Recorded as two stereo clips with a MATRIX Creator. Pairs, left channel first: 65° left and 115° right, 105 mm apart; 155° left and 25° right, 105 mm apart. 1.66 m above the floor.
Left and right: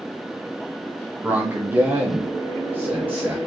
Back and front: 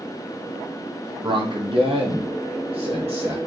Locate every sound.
1.2 s a man speaking: 40° right, 0.6 m